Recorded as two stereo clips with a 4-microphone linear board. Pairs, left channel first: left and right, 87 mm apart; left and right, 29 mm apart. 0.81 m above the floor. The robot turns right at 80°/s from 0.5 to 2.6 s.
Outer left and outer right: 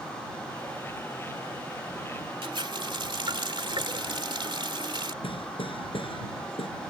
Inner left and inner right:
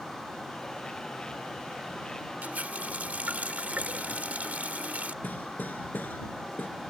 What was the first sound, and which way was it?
A running tap, 80° right.